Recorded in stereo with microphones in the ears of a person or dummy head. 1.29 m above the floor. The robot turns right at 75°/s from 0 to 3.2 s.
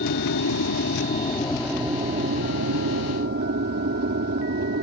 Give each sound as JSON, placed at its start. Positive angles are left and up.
{"t": 0.0, "sound": "an aircraft", "azimuth_deg": 55}